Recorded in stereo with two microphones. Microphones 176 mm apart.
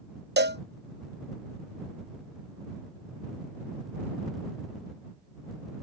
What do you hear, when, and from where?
0.4 s a cowbell: 75° right (ahead or behind)